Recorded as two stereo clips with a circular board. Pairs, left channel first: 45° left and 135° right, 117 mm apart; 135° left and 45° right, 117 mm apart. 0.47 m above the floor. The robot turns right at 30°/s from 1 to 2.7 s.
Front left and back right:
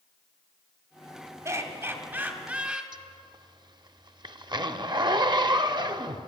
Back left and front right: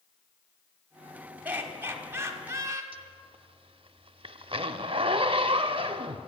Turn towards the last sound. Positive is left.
turn(degrees=-85)